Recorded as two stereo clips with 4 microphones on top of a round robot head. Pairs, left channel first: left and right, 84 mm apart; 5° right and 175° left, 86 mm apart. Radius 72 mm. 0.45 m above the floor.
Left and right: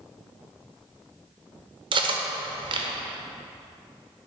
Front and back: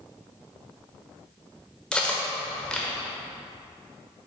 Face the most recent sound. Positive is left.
turn(degrees=-85)